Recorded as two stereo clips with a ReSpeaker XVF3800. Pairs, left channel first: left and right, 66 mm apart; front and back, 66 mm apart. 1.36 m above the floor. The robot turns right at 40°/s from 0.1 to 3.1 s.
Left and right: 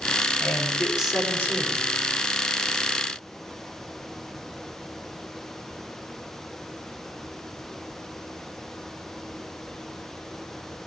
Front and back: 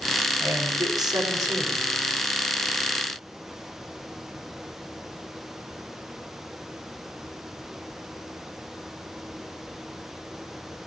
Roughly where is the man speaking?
Behind.